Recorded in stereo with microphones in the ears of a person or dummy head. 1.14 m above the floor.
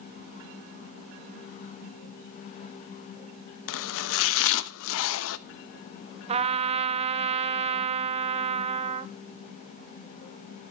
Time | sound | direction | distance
3.7 | chopping | 70° left (ahead or behind) | 0.7 m
6.3 | a trumpet | 30° right (ahead or behind) | 0.5 m